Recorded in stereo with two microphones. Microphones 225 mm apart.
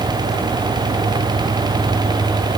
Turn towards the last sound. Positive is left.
No sound to turn to.